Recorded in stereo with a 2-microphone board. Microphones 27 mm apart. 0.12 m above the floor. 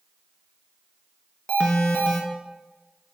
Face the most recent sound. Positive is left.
turn(degrees=30)  # may be behind; listen again after turning